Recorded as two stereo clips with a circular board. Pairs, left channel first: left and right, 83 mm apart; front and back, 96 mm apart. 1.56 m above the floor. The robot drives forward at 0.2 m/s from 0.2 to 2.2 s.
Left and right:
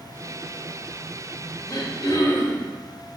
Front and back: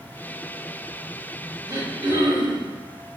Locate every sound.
1.7 s throat clearing: 125° left, 0.7 m; by 2.7 s 135° left, 0.7 m